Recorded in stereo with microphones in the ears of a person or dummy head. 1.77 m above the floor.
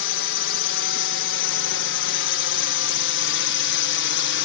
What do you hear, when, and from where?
0.0 s a drone: 65° left (ahead or behind); by 4.5 s 55° left (ahead or behind)